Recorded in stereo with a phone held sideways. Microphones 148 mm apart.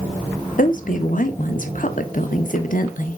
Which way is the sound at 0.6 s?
65° left (ahead or behind).